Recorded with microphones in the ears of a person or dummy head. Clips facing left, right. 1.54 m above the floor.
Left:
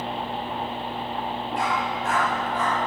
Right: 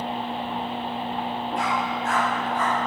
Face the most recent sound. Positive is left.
turn(degrees=75)  # may be behind; listen again after turning